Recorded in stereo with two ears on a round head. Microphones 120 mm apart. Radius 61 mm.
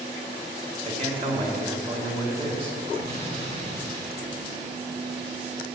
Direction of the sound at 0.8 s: 40° right (ahead or behind).